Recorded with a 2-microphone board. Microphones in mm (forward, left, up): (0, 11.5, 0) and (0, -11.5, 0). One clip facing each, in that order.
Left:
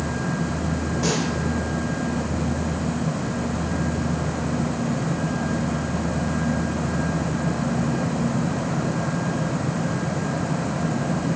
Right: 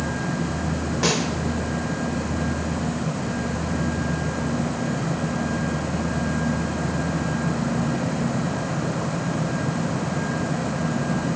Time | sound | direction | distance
1.0 | a snare drum | 25° right (ahead or behind) | 1.4 m